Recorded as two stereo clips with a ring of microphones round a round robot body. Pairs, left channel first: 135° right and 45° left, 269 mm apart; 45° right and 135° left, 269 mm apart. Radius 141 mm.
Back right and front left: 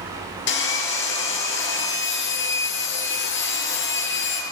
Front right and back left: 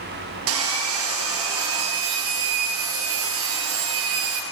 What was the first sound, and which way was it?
Sawing, 175° left.